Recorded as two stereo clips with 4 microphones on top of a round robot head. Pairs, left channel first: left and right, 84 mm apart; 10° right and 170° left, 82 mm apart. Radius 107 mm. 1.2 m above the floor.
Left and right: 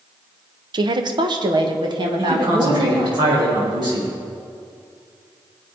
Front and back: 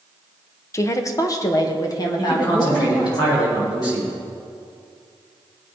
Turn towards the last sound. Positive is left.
turn(degrees=-55)